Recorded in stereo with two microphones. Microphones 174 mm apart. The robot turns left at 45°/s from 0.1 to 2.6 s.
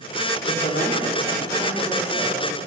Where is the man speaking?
90° left, 1.8 m; by 2.6 s 5° right, 1.8 m.